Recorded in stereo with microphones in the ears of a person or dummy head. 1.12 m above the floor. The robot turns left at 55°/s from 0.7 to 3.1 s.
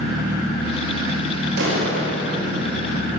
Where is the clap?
90° right, 4.5 m; by 2.3 s 135° right, 4.5 m.